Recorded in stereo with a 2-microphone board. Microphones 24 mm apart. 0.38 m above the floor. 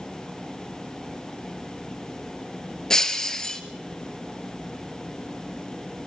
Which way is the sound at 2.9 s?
25° left (ahead or behind).